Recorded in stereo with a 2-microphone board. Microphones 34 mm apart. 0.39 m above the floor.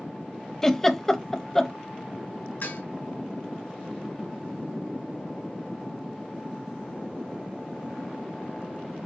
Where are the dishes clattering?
70° left (ahead or behind), 2 m.